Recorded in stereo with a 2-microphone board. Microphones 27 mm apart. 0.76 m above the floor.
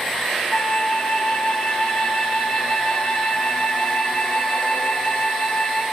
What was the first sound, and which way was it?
A flute, 35° left (ahead or behind).